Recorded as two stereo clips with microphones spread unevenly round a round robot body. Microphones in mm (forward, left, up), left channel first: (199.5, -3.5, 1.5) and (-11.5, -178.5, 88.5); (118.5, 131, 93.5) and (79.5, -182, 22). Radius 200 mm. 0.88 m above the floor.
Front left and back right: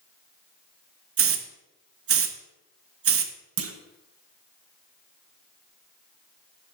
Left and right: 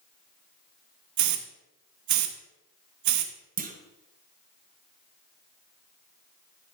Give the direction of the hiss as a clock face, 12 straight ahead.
3 o'clock.